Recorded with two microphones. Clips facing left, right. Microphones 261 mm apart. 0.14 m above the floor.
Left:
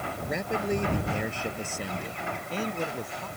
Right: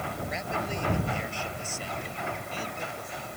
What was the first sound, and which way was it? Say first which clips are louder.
A man speaking: left 9 dB; 60° left (ahead or behind).